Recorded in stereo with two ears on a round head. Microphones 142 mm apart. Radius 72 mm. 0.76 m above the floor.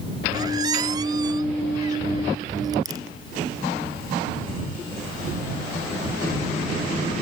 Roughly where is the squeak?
Right.